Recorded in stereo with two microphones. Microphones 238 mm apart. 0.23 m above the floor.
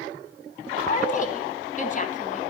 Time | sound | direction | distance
0.8 | a woman speaking | 35° left (ahead or behind) | 1.2 m